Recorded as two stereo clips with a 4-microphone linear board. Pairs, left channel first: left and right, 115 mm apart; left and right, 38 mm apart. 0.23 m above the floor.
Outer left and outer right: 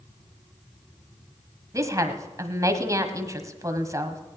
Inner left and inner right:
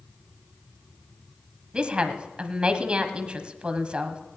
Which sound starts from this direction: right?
A woman speaking, at 1.7 s.